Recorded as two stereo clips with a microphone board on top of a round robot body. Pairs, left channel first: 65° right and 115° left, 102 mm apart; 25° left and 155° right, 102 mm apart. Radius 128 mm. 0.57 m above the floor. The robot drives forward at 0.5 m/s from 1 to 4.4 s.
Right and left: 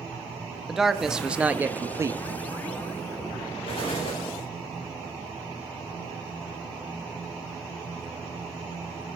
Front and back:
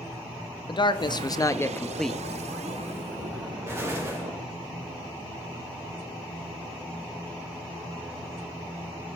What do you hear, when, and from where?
0.7 s a man speaking: 30° left, 0.8 m; by 2.2 s 120° left, 0.6 m
3.7 s an explosion: 90° right, 3.5 m; by 4.3 s 100° right, 3.5 m